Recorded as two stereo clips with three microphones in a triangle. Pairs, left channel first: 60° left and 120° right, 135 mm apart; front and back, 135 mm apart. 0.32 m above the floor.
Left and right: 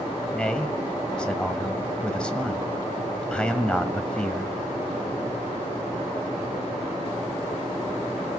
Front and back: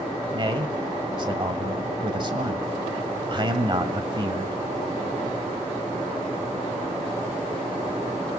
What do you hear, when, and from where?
0.3 s a man speaking: 140° left, 1.5 m